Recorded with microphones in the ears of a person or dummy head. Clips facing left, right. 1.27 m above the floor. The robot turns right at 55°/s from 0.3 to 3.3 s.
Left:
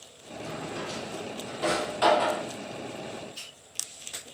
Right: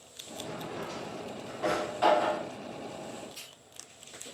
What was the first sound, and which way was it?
A drawer, 5° right (ahead or behind).